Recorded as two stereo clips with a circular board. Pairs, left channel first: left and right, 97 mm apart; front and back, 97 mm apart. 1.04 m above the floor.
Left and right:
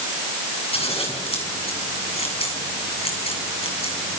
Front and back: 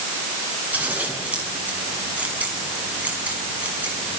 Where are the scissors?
105° left, 6.5 m.